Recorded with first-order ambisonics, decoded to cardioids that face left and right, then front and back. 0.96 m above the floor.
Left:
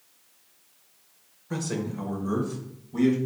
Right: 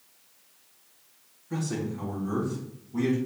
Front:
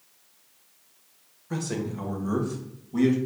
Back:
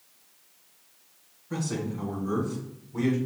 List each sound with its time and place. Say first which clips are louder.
1.5 s a man speaking: left 1 dB, front 1 dB; 55° left, 1.1 m; by 3.1 s 25° left, 2.0 m